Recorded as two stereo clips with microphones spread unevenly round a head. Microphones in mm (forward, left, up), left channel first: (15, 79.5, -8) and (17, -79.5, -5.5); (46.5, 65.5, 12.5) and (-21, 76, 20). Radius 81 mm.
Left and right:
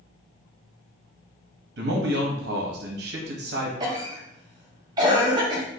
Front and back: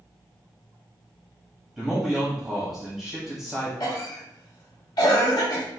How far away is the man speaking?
About 0.8 m.